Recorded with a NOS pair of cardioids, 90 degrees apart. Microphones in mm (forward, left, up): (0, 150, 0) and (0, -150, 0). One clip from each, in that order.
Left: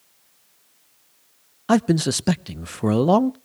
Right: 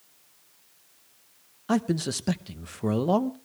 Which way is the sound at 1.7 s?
35° left.